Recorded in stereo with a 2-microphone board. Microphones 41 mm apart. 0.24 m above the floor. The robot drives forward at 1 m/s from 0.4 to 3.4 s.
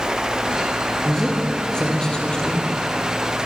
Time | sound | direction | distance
1.1 | a man speaking | 15° left (ahead or behind) | 7 m